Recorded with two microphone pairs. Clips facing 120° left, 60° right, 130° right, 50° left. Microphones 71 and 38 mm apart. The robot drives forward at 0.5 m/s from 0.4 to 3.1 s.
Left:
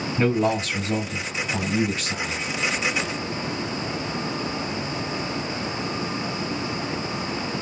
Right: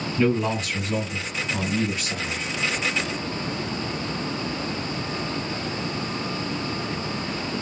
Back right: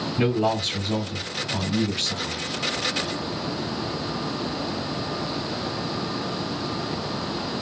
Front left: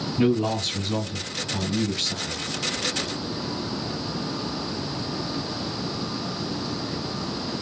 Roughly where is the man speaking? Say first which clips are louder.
Left 1 dB, even; behind.